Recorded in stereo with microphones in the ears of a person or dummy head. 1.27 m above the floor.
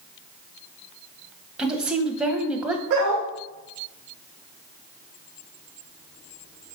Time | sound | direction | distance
1.6 | a woman speaking | 15° right (ahead or behind) | 0.7 m
2.9 | a dog barking | 50° right (ahead or behind) | 1.5 m